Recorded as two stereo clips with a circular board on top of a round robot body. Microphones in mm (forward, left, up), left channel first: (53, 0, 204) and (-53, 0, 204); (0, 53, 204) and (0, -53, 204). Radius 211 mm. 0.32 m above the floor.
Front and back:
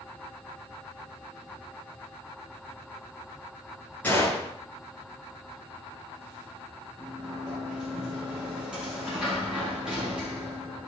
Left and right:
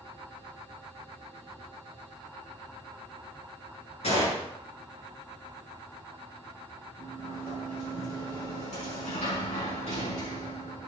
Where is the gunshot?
75° left, 7.5 m.